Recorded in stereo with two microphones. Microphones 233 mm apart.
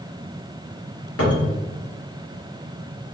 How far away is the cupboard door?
About 0.9 m.